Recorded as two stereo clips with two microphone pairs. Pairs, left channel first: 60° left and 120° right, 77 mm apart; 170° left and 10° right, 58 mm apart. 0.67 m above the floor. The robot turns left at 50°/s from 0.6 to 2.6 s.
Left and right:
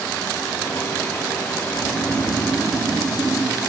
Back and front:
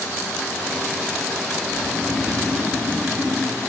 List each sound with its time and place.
1.6 s snoring: 90° left, 4.5 m; by 3.6 s 45° left, 4.5 m